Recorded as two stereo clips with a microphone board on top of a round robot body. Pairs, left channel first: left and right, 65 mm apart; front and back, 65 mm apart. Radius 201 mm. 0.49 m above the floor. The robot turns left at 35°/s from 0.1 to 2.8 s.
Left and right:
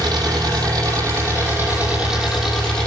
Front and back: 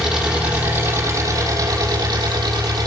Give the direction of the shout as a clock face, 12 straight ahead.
No shout in this recording.